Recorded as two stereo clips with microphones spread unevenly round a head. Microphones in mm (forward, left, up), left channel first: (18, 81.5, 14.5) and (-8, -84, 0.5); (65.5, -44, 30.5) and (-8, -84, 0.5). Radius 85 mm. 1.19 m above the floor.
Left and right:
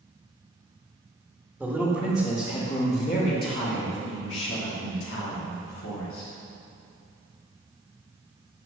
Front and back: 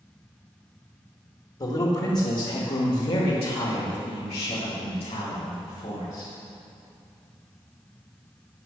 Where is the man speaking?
10° right, 1.7 m; by 6.3 s 80° left, 3.5 m.